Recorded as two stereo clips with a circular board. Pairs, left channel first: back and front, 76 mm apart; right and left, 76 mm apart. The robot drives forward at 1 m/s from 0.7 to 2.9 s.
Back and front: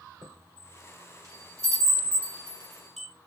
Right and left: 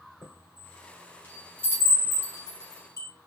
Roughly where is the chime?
Ahead.